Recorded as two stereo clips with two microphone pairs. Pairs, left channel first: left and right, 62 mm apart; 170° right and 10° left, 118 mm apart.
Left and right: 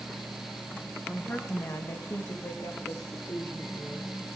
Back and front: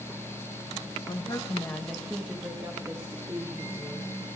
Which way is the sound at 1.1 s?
155° left.